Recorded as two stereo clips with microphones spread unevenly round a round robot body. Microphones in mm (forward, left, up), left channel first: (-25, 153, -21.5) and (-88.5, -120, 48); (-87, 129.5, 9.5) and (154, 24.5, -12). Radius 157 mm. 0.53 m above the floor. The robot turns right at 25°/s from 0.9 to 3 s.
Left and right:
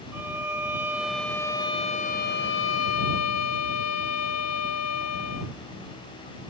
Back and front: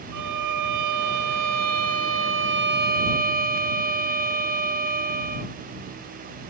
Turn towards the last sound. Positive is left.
turn(degrees=35)